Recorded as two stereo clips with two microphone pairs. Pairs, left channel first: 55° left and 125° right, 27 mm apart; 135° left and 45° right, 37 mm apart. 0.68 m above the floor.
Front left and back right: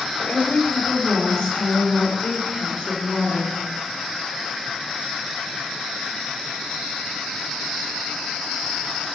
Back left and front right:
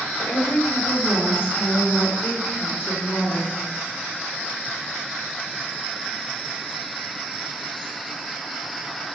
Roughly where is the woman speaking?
Behind left.